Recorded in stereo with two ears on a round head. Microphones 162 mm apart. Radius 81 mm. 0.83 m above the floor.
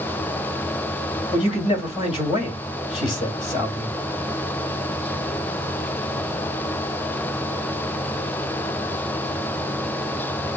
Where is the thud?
I don't hear a thud.